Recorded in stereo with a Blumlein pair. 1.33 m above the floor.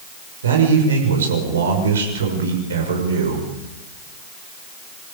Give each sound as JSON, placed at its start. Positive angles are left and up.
{"t": 0.4, "sound": "a man speaking", "azimuth_deg": -65, "distance_m": 6.5}